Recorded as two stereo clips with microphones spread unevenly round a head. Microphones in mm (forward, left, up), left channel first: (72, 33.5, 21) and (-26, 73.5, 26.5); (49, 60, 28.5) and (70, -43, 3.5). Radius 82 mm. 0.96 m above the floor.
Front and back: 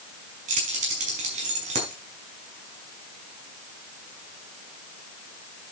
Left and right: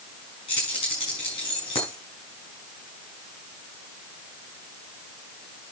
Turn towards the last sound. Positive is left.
turn(degrees=160)